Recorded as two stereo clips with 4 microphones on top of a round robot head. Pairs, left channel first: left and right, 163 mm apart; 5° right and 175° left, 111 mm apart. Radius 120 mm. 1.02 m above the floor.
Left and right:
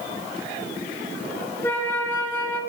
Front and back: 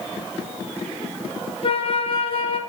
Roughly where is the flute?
Ahead.